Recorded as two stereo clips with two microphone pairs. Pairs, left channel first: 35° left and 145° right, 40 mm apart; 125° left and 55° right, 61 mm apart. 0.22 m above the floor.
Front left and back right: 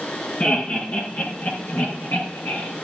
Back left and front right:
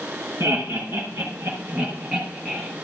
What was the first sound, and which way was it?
Laughter, 10° right.